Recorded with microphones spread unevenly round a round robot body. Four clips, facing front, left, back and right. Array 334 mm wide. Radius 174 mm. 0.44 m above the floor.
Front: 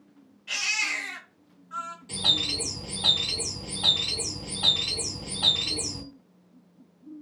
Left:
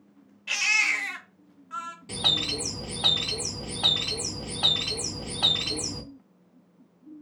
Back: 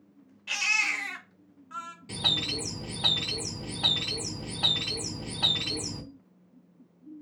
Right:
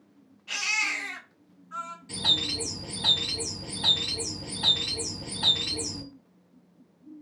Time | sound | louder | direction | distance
0.5 | a baby crying | left 3 dB, back 1 dB | 130° left | 0.9 m
2.1 | a bird | left 3 dB, back 2 dB | 120° left | 0.6 m